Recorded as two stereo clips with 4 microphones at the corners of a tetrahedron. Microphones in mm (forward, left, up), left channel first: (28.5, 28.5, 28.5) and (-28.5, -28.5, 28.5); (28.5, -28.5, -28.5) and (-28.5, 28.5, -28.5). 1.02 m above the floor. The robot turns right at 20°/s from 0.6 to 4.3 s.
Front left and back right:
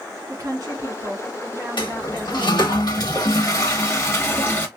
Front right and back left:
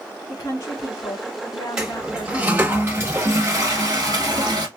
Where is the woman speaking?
90° right, 2 m; by 2.7 s 50° right, 2 m.